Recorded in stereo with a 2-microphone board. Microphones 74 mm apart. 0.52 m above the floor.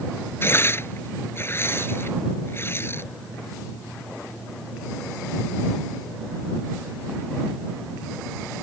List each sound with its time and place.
0.4 s tearing paper: 35° left (ahead or behind)